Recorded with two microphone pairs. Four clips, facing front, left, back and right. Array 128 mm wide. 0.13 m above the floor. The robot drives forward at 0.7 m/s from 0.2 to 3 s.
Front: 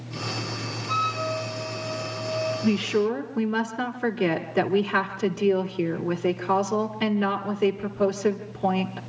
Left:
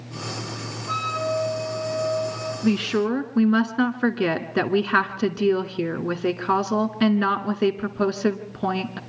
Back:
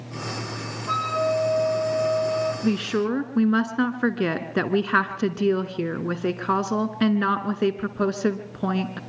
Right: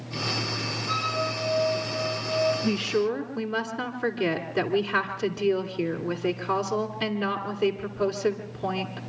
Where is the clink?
No clink in this recording.